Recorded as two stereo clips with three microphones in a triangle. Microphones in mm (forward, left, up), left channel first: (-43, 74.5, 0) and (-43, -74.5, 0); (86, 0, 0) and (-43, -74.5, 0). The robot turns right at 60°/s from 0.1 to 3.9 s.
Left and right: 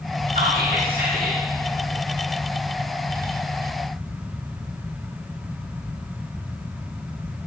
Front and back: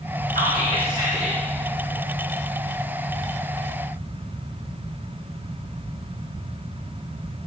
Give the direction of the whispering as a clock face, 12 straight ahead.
4 o'clock.